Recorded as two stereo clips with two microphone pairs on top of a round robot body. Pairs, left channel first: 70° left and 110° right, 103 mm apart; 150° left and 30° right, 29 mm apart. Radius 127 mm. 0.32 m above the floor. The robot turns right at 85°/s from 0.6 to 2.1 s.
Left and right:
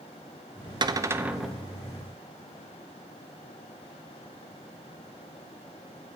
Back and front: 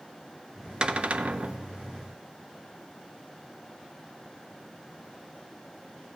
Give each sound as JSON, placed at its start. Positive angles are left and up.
{"t": 0.8, "sound": "a cupboard door", "azimuth_deg": -80, "distance_m": 0.7}